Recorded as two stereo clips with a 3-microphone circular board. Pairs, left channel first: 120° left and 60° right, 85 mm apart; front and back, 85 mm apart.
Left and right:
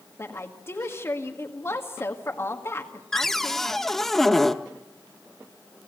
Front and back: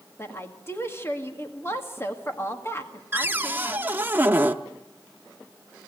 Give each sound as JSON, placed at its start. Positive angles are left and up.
{"t": 0.2, "sound": "a woman speaking", "azimuth_deg": 60, "distance_m": 2.0}
{"t": 3.1, "sound": "a cupboard door", "azimuth_deg": -160, "distance_m": 0.7}